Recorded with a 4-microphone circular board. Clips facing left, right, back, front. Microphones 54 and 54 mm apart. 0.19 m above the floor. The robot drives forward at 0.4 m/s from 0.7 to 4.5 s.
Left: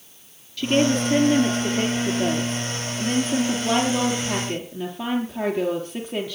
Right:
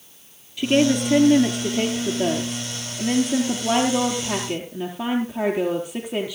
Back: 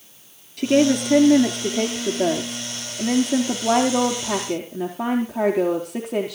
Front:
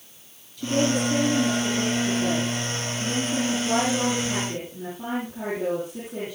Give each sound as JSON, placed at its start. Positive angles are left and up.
{"t": 0.6, "sound": "a woman speaking", "azimuth_deg": -160, "distance_m": 3.0}